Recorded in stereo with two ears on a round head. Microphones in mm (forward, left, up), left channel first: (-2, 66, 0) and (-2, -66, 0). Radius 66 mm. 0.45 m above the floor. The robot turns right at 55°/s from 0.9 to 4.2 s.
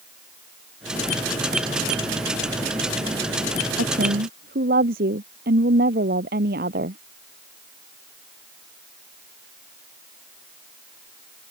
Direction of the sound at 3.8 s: 85° right.